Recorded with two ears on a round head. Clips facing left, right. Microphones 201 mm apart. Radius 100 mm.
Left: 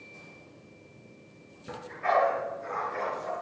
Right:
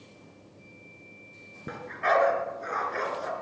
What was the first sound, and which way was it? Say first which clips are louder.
A dog barking: right 2 dB; 75° right (ahead or behind).